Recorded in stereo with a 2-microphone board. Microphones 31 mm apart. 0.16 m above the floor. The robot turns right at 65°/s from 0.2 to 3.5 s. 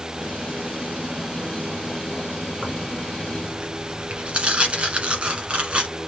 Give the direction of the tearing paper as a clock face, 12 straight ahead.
6 o'clock.